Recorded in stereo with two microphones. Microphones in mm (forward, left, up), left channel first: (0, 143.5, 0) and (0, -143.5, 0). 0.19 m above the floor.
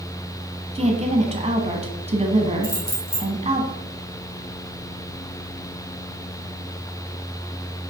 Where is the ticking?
No ticking in this recording.